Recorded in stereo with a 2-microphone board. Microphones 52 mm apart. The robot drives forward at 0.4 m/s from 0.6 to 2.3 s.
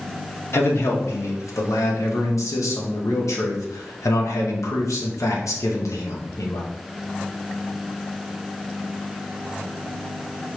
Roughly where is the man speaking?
Left.